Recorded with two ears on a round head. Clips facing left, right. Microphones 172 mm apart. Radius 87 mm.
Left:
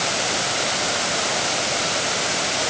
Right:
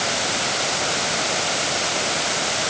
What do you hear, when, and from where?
Only background noise.